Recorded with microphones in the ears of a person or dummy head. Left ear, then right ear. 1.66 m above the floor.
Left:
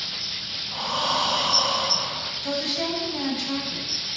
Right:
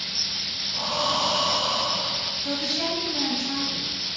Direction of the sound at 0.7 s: 40° left (ahead or behind).